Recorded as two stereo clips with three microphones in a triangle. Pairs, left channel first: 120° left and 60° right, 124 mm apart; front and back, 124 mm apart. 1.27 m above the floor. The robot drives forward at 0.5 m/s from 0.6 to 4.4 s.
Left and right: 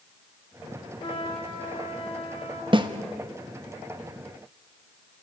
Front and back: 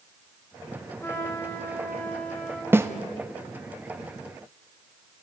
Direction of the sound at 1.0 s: 70° left.